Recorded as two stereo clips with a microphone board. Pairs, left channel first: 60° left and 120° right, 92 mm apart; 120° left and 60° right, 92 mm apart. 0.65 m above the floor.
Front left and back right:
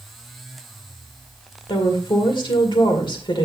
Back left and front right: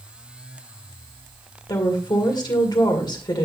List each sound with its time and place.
1.7 s a woman speaking: 85° left, 2 m